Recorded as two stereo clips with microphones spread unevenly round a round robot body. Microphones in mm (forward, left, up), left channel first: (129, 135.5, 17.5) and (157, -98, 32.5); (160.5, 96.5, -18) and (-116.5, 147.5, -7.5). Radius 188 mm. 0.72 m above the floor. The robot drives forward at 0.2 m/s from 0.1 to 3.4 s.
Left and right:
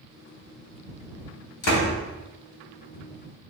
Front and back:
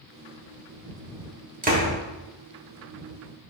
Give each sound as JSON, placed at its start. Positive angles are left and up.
{"t": 1.6, "sound": "a door slam", "azimuth_deg": 105, "distance_m": 2.0}